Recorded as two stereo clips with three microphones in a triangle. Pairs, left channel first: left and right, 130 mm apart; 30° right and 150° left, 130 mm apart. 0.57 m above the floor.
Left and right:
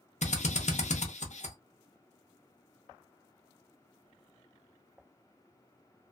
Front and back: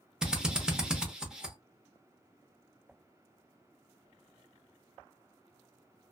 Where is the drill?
65° left, 0.7 m.